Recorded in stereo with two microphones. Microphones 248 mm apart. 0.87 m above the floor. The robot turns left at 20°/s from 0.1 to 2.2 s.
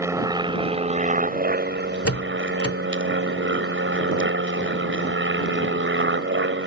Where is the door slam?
65° left (ahead or behind); by 2.8 s 70° left (ahead or behind).